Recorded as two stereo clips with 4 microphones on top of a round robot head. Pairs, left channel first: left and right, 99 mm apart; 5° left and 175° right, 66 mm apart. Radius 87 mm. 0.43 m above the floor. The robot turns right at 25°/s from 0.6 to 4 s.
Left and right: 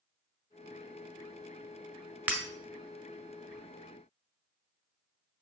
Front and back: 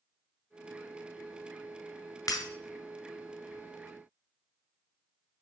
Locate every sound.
2.3 s breaking glass: 20° right, 1.3 m; by 2.5 s 15° right, 1.3 m